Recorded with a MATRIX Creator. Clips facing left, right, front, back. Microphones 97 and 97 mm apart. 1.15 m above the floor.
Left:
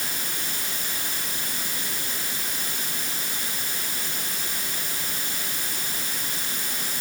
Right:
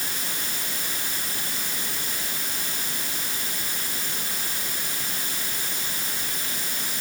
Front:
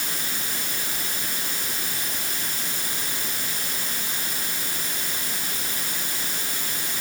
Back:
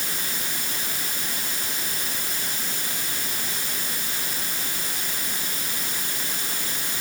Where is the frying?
I don't hear frying.